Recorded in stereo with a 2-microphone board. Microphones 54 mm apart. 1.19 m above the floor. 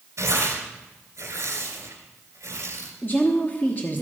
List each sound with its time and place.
0.2 s tearing paper: 60° right (ahead or behind), 2.5 m
3.0 s a woman speaking: 35° left (ahead or behind), 1.1 m